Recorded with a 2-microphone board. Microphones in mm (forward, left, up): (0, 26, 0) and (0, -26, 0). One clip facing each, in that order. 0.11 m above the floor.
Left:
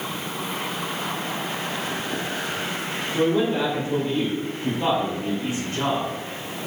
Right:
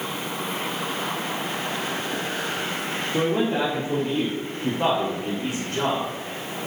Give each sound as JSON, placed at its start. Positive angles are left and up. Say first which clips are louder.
{"t": 3.1, "sound": "a man speaking", "louder": "left 2 dB", "side_deg": -60, "distance_m": 3.0}